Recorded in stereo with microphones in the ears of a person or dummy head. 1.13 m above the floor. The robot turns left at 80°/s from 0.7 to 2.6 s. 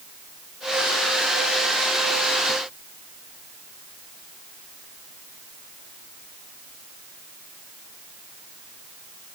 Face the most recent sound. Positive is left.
No sound to turn to.